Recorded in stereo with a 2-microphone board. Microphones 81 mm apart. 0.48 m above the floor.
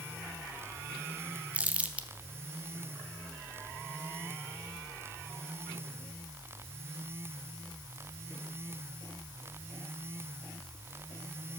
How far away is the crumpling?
About 0.6 m.